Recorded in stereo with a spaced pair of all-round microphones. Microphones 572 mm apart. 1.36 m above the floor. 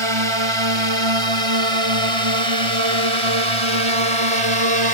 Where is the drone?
55° right (ahead or behind); by 5.0 s 65° right (ahead or behind).